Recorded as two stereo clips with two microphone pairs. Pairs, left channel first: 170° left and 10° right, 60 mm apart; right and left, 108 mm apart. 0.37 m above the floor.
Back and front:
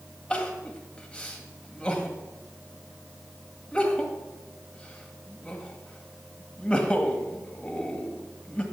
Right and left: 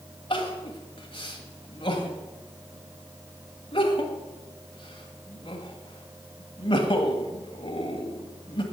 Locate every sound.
0.3 s crying: 125° right, 1.9 m